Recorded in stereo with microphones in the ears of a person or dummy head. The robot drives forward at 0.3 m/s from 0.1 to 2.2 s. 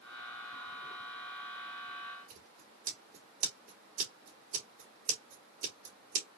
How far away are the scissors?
About 1.9 m.